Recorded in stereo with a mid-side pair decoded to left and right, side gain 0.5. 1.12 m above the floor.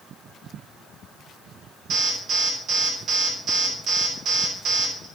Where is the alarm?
50° right, 3.5 m.